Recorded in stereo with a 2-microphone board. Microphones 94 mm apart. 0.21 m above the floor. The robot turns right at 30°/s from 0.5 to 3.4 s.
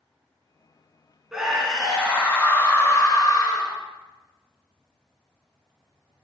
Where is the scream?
5° right, 2.5 m; by 3.8 s 55° left, 2.5 m.